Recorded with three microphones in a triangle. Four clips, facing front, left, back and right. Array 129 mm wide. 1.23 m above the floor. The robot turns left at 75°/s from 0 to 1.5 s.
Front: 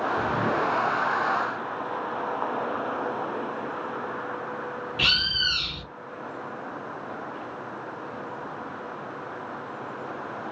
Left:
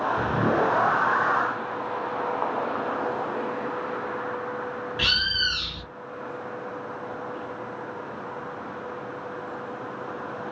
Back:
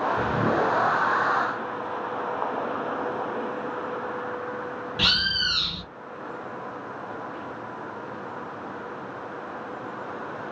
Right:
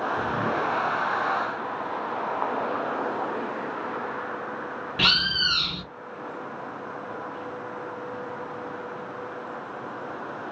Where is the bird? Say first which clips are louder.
Right 4 dB, back 3 dB; 105° right, 0.6 m.